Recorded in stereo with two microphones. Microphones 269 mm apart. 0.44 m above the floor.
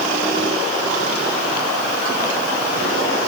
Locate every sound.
Only background noise.